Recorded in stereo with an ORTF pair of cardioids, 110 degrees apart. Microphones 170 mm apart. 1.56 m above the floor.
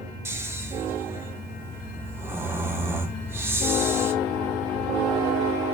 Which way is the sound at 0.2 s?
15° right.